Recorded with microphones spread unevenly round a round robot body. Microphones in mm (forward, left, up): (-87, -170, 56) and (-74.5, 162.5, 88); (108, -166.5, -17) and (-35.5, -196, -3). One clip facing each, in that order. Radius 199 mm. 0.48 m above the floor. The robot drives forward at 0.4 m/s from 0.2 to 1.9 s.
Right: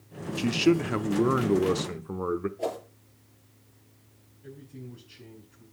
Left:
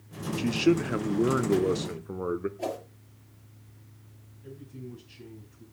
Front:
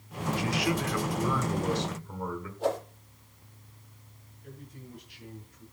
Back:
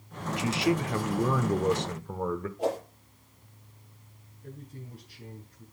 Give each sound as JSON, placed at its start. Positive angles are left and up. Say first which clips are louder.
{"t": 0.4, "sound": "a man speaking", "louder": "right 1 dB, back 4 dB", "azimuth_deg": -135, "distance_m": 0.7}
{"t": 2.6, "sound": "a whoosh", "louder": "right 1 dB, front 1 dB", "azimuth_deg": 160, "distance_m": 6.5}
{"t": 4.4, "sound": "a man speaking", "louder": "left 1 dB, back 2 dB", "azimuth_deg": 165, "distance_m": 5.0}